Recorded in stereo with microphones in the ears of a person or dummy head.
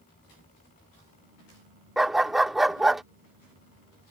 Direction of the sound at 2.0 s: Centre (ahead or behind).